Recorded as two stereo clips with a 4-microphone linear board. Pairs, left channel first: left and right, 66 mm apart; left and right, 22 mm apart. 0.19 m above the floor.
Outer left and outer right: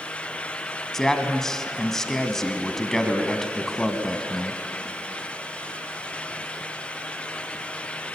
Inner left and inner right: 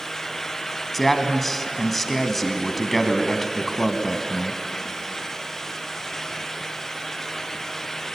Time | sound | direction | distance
0.9 | a man speaking | 5° left (ahead or behind) | 1.6 m